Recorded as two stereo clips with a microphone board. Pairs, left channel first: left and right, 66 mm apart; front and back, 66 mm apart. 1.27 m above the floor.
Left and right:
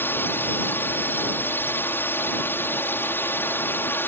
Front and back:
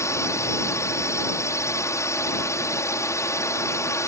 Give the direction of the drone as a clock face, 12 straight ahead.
11 o'clock.